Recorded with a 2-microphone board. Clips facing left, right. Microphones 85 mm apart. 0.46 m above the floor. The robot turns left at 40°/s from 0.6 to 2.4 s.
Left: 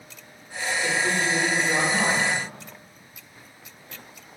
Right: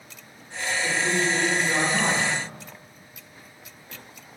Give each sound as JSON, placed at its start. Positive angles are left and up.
{"t": 0.8, "sound": "a man speaking", "side_deg": 20, "distance_m": 1.1}